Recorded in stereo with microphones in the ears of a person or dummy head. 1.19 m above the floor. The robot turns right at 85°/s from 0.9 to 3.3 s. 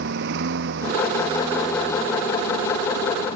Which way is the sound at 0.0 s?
70° right.